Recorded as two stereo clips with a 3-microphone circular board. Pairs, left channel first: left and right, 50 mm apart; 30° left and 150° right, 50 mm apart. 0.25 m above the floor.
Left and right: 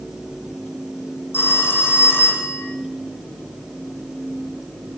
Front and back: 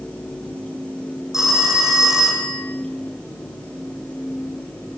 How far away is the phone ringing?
About 6.5 m.